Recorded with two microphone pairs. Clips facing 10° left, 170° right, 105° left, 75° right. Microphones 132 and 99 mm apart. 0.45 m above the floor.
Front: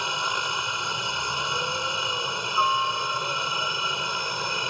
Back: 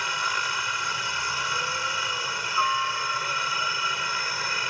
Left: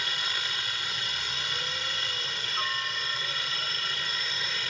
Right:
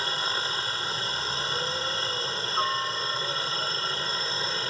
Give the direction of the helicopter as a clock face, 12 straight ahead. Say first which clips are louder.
Front 1 dB, right 5 dB; 2 o'clock.